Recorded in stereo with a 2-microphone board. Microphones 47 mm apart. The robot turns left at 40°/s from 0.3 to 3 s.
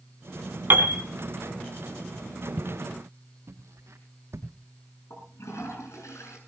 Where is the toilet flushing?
75° left (ahead or behind), 7 m.